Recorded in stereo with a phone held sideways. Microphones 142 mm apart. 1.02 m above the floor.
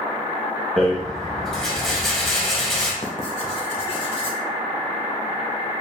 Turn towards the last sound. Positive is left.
turn(degrees=40)  # may be behind; listen again after turning